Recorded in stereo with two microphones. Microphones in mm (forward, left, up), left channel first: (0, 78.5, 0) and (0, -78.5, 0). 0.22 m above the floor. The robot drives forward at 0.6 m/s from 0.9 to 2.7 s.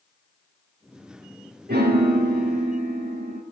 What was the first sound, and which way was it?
A piano, 75° right (ahead or behind).